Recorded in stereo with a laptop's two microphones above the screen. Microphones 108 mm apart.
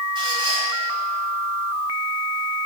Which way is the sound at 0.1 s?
40° right (ahead or behind).